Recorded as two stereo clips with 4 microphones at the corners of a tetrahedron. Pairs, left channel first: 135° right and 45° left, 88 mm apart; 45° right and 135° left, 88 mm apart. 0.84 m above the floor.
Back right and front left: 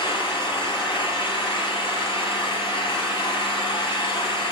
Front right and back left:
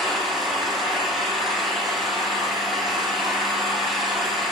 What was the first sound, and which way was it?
An engine running, 140° right.